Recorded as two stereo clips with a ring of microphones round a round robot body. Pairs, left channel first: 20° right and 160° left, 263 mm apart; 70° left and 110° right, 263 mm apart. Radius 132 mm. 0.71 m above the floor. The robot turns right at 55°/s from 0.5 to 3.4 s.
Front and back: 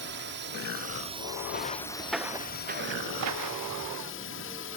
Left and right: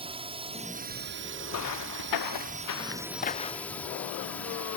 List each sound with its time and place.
0.0 s a drone: 175° right; by 4.8 s 15° right
1.5 s footsteps: 35° left; by 3.8 s 135° left